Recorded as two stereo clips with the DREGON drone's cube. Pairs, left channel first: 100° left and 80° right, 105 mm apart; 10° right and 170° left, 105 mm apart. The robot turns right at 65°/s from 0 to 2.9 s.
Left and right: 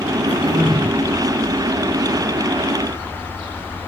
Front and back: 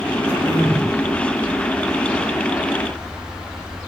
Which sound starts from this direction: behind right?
Throat clearing, at 0.3 s.